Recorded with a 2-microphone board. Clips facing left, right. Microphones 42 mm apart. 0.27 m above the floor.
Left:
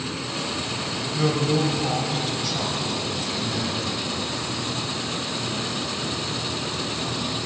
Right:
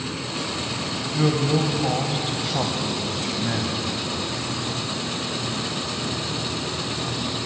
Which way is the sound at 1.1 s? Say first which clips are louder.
Right 1 dB; centre (ahead or behind).